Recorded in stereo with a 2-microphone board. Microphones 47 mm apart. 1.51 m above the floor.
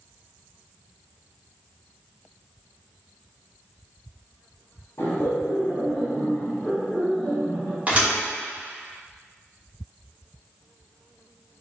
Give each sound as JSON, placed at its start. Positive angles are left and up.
{"t": 5.0, "sound": "laughter", "side_deg": 75, "distance_m": 1.0}
{"t": 7.9, "sound": "a thud", "side_deg": -30, "distance_m": 1.2}